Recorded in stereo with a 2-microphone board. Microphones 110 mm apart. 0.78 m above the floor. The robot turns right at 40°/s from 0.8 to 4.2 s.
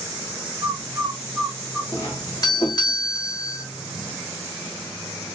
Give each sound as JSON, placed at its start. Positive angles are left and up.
{"t": 0.6, "sound": "a bird", "side_deg": -40, "distance_m": 1.7}
{"t": 1.9, "sound": "a doorbell", "azimuth_deg": 35, "distance_m": 1.8}